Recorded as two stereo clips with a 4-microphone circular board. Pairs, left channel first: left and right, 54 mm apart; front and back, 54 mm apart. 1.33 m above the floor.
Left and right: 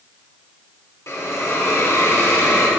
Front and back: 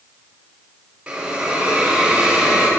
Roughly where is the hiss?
Left.